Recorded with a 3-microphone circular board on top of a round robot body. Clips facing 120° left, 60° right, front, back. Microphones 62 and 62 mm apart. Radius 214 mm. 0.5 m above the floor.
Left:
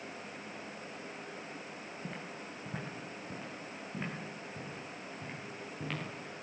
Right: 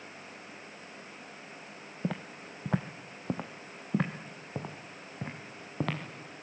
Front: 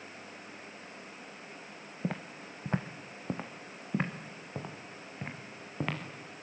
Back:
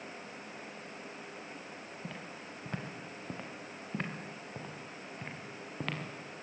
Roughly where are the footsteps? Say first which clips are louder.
Right 10 dB, front 10 dB; ahead right.